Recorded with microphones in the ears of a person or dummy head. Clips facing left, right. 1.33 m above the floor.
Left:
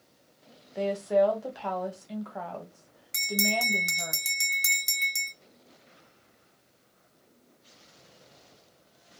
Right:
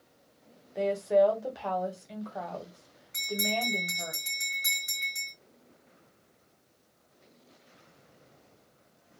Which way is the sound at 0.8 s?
5° left (ahead or behind).